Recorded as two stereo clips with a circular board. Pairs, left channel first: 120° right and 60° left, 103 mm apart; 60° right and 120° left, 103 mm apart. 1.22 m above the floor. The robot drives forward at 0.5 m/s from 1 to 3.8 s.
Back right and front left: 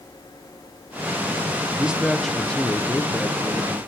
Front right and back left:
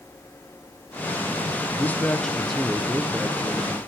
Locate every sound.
1.7 s a man speaking: 10° right, 0.7 m; by 3.8 s 175° right, 0.9 m